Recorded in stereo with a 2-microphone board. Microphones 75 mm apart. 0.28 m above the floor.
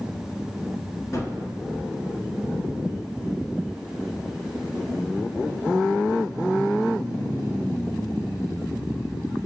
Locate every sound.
1.1 s a gunshot: 40° left (ahead or behind), 2 m